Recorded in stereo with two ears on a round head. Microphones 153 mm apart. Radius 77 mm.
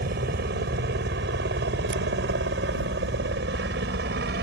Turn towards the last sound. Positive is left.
turn(degrees=-60)  # may be behind; listen again after turning